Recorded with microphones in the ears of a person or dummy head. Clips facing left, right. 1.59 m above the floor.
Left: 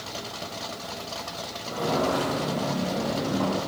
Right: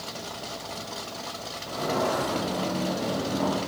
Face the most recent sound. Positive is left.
turn(degrees=30)  # may be behind; listen again after turning